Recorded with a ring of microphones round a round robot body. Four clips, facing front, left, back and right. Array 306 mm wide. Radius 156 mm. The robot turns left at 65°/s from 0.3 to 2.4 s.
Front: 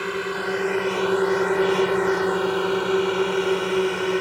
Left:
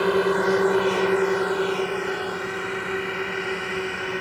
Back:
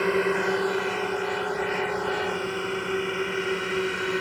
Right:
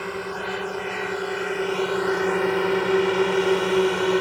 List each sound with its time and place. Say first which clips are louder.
0.0 s a drone: left 10 dB, back 3 dB; 110° left; by 4.2 s 65° right